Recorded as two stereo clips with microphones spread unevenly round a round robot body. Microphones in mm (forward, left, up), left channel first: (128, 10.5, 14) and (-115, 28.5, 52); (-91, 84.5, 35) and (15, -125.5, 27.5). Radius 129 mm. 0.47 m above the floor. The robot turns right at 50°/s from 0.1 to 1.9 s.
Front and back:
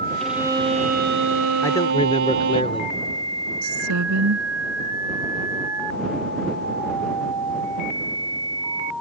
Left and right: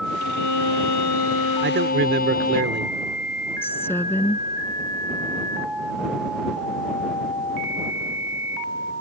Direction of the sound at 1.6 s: 75° right.